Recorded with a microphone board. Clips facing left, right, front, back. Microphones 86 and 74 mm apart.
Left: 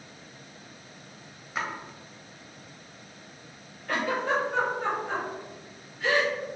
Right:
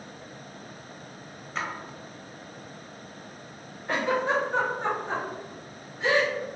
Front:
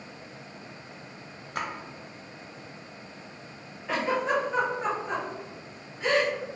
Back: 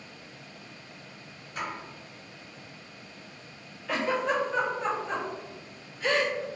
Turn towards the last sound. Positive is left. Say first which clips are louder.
# right 2 dB, front 1 dB
turn(degrees=-50)